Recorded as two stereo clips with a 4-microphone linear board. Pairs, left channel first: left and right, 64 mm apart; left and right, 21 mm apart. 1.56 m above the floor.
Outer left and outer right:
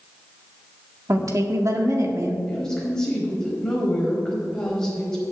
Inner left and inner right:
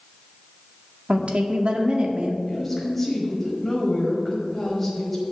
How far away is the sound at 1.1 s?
About 1.8 m.